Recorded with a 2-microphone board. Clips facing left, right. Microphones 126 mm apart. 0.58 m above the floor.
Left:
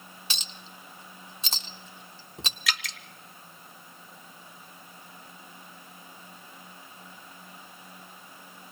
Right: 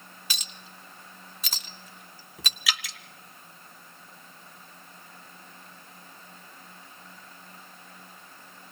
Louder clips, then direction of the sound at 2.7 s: Even; 5° right (ahead or behind).